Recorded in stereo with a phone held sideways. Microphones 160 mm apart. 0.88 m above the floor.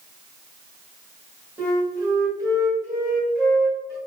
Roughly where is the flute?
Centre.